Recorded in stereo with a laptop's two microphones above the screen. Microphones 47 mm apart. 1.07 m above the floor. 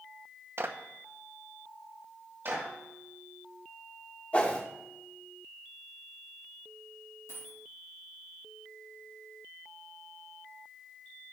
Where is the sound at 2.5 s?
50° right (ahead or behind), 4.5 m.